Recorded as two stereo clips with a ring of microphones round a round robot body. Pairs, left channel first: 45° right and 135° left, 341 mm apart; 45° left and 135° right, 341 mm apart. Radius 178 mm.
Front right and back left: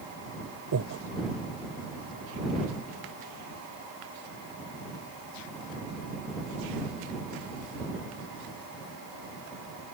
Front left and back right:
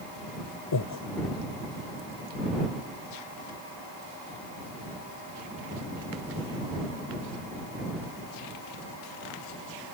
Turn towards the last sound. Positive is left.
turn(degrees=85)